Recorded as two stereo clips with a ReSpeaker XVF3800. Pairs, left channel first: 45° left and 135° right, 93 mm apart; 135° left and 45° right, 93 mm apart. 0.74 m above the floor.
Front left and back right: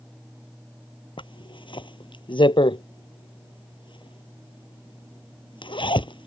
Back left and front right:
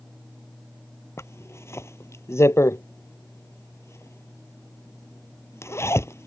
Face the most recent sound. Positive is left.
turn(degrees=75)